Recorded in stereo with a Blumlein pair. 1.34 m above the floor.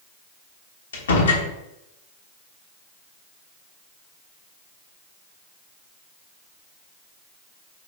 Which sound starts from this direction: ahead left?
A door slam, at 0.9 s.